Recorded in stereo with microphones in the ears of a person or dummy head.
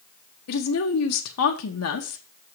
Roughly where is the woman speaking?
Left.